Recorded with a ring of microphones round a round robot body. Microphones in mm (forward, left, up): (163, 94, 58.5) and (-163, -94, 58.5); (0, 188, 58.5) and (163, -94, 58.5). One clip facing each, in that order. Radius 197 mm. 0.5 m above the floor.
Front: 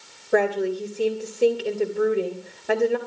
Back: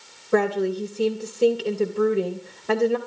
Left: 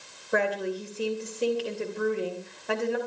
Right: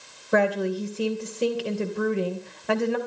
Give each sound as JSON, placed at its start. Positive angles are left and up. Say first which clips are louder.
{"t": 0.3, "sound": "a woman speaking", "louder": "even, right 5 dB", "azimuth_deg": -70, "distance_m": 3.0}